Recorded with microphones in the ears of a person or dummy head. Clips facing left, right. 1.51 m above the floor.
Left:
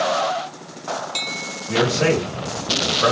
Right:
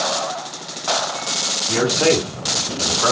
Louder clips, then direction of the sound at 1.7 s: Right 1 dB; 35° left (ahead or behind).